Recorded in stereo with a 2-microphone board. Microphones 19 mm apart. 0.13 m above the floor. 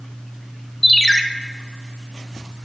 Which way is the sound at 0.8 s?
5° left (ahead or behind).